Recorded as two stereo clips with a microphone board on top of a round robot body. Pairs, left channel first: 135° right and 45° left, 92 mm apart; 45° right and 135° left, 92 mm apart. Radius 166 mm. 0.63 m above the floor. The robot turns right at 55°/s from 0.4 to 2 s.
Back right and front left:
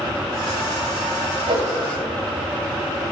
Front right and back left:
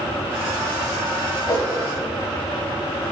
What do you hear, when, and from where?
1.5 s a whoosh: 10° left, 0.7 m; by 1.7 s 20° left, 0.7 m